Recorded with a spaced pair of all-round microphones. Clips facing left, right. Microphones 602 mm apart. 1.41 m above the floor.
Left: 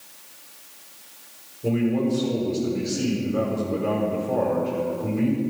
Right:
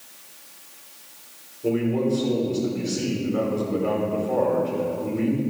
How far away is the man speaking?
About 5.5 m.